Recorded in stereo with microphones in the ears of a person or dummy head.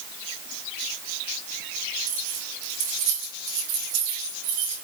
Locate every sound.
2.1 s keys jangling: 65° right (ahead or behind), 7.5 m